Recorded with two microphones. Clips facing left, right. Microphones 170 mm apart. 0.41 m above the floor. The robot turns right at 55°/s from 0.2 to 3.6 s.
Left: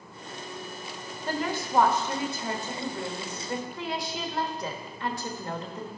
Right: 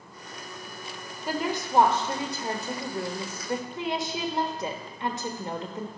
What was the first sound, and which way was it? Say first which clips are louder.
A woman speaking: right 1 dB; 165° right.